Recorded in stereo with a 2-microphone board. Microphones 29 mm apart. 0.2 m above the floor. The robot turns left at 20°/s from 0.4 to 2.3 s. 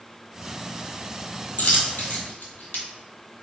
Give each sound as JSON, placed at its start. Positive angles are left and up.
{"t": 1.6, "sound": "a dropped coin", "side_deg": 70, "distance_m": 0.7}